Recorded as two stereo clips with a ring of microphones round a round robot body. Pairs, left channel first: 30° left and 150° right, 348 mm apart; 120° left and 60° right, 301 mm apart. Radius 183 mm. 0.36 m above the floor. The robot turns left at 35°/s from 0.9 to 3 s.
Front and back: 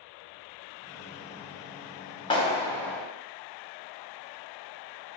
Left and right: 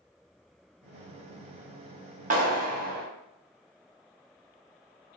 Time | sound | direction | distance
2.3 | a clap | 30° right | 0.9 m